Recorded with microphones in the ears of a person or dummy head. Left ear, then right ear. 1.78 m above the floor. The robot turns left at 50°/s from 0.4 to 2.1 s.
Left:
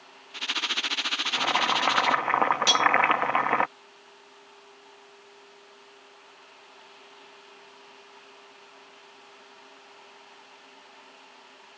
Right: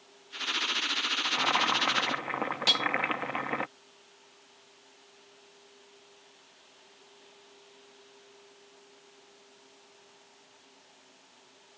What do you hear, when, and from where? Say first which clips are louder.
1.2 s boiling: left 2 dB; 175° left; by 3.7 s 135° left
2.7 s cutlery clinking: left 3 dB; 20° left (ahead or behind)